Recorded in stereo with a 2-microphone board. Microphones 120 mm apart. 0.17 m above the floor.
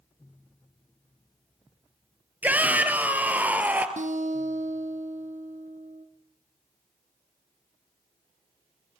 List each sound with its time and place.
2.4 s a shout: 10° right (ahead or behind), 3 m
4.0 s a guitar: 75° right (ahead or behind), 3.5 m